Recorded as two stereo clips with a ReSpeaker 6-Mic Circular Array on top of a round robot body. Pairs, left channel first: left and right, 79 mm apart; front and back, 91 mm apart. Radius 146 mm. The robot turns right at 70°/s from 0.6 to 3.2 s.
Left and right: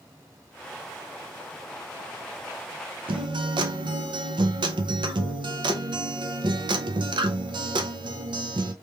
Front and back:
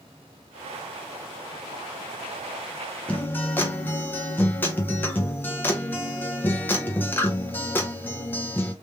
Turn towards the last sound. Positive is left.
turn(degrees=-70)